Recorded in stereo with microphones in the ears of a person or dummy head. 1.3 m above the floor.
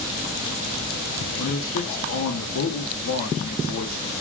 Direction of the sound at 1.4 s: 75° left (ahead or behind).